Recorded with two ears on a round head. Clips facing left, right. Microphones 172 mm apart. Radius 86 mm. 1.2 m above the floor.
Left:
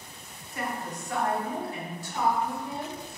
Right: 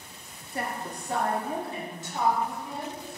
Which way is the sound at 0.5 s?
30° right (ahead or behind).